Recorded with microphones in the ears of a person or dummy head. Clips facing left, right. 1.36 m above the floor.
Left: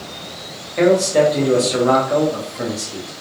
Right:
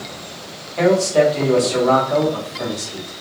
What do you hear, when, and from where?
0.8 s a man speaking: 20° left (ahead or behind), 0.7 m